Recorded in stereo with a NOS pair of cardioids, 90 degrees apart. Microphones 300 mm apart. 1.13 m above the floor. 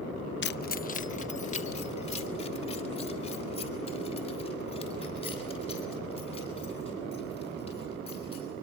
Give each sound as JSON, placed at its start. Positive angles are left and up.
{"t": 0.4, "sound": "keys jangling", "azimuth_deg": 40, "distance_m": 0.5}